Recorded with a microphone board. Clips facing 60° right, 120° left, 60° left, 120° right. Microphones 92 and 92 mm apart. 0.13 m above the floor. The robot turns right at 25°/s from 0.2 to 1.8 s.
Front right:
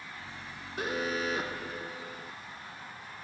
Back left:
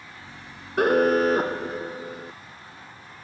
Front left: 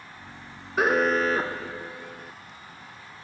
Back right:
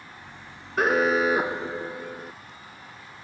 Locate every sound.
0.8 s an alarm: 150° left; by 2.3 s 175° left